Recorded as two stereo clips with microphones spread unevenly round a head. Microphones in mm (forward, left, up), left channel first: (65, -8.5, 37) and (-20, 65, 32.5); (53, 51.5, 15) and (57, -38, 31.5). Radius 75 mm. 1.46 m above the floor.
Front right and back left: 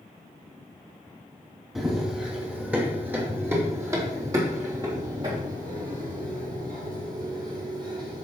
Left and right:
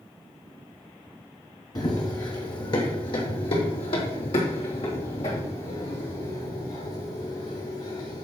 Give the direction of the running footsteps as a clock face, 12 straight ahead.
10 o'clock.